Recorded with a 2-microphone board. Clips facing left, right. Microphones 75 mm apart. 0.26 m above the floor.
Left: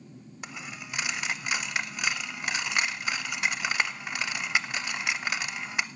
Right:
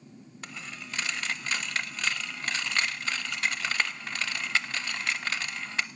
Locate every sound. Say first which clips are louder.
0.4 s a dropped coin: left 1 dB; 15° left (ahead or behind), 0.5 m